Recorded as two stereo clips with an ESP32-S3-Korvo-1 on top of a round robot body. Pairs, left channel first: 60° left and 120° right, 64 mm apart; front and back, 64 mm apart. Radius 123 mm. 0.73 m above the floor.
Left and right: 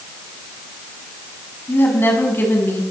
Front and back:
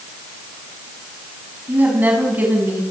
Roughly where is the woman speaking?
Behind left.